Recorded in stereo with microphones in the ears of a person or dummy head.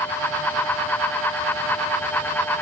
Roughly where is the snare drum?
I don't hear a snare drum.